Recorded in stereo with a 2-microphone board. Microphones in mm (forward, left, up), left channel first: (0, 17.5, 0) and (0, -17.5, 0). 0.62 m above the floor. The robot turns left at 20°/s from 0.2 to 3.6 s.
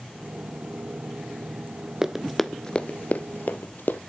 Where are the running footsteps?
10° right (ahead or behind), 0.6 m; by 4.0 s 65° left (ahead or behind), 1.3 m.